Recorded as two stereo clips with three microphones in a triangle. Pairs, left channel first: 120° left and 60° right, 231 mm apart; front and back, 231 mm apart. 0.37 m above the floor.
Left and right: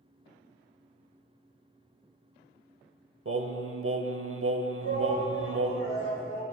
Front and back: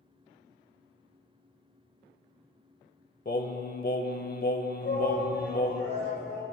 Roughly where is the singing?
Ahead right.